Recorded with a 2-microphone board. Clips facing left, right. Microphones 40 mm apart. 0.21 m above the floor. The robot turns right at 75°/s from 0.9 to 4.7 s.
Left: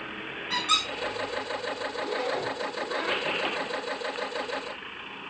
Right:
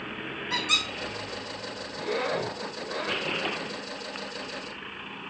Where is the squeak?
65° left (ahead or behind), 1.9 m.